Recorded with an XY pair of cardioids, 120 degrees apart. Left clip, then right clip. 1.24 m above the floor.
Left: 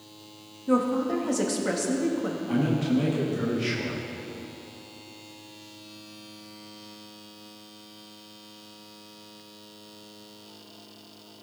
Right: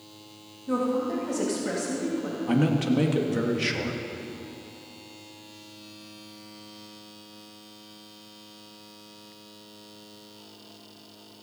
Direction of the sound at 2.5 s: 50° right.